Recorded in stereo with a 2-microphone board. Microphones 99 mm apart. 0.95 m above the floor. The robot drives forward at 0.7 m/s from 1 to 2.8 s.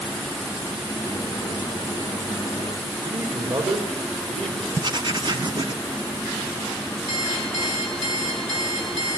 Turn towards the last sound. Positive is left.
turn(degrees=-60)  # may be behind; listen again after turning